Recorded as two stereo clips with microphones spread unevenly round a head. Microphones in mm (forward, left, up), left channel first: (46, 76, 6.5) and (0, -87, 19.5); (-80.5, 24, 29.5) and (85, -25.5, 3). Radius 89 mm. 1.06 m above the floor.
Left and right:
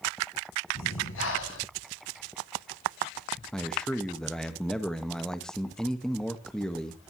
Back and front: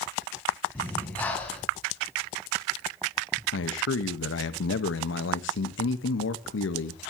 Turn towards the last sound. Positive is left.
turn(degrees=160)